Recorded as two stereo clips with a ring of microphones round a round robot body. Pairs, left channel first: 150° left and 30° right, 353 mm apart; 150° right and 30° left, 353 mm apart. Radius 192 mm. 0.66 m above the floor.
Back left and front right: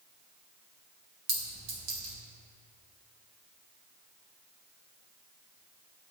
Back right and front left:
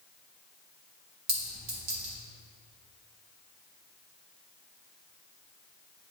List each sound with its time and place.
1.3 s a clink: straight ahead, 1.6 m